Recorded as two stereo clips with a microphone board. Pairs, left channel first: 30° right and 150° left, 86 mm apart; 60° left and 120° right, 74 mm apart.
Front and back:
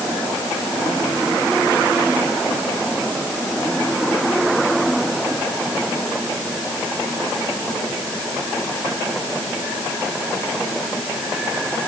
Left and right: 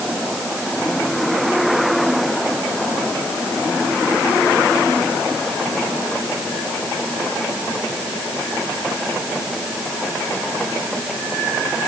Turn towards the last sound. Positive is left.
No sound to turn to.